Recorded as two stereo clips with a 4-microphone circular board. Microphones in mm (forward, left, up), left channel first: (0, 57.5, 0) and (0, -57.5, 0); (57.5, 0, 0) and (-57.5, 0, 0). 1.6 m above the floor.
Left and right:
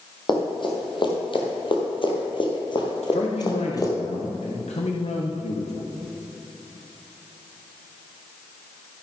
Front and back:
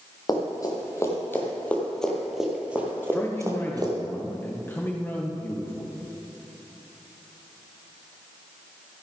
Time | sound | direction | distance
0.3 | running footsteps | 50° left | 3 m
3.0 | a man speaking | 70° left | 1.1 m